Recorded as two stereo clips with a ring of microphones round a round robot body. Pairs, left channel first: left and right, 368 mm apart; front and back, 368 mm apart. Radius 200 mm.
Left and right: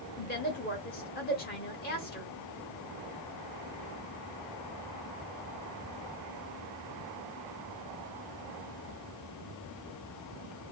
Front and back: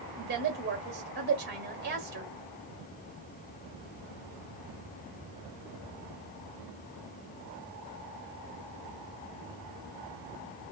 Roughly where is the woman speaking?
Behind left.